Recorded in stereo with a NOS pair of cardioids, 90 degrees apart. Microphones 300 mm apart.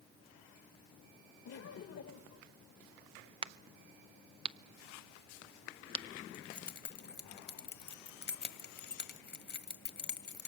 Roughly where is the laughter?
Ahead left.